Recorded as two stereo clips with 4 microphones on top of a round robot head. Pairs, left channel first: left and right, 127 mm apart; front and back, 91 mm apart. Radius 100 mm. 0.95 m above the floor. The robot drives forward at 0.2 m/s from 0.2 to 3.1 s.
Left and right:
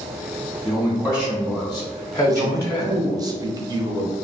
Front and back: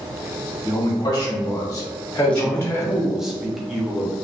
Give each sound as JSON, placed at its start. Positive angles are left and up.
{"t": 0.6, "sound": "a man speaking", "azimuth_deg": 25, "distance_m": 1.2}
{"t": 2.3, "sound": "a man speaking", "azimuth_deg": -65, "distance_m": 0.6}